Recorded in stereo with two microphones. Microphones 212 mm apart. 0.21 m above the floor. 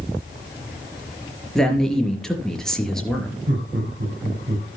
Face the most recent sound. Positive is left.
turn(degrees=-60)  # may be behind; listen again after turning